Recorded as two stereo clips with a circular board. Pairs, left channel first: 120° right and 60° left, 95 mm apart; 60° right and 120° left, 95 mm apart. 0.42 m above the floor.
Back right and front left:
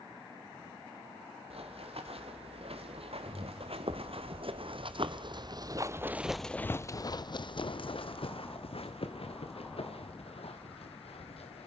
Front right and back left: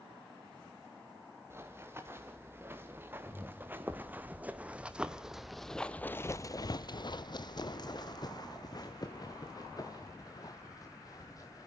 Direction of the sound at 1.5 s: 55° left.